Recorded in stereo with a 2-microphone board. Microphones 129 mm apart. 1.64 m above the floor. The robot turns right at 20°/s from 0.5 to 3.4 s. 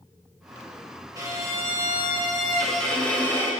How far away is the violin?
About 3 m.